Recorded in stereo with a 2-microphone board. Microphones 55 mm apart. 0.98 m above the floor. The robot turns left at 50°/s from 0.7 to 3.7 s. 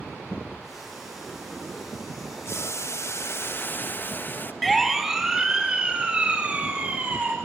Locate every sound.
2.5 s boiling: 110° left, 1.2 m; by 4.5 s 50° left, 1.2 m
4.6 s a siren: centre (ahead or behind), 3 m; by 7.3 s 25° right (ahead or behind), 6 m